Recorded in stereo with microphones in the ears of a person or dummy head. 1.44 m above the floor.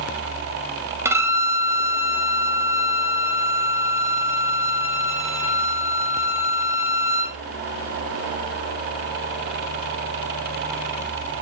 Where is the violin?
10° right (ahead or behind), 0.6 m.